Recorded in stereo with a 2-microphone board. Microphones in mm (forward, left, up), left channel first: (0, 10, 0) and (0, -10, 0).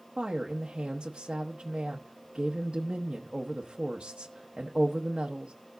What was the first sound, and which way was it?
A woman speaking, 45° right (ahead or behind).